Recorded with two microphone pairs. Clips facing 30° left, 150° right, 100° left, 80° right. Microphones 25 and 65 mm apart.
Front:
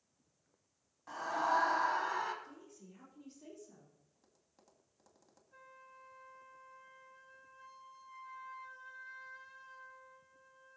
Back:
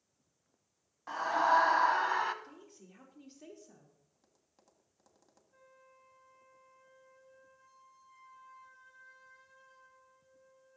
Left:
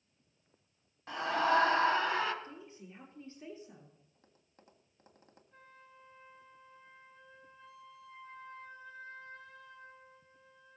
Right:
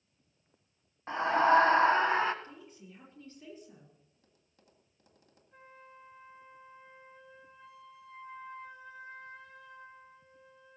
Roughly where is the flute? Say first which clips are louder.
Front 5 dB, right 5 dB; ahead.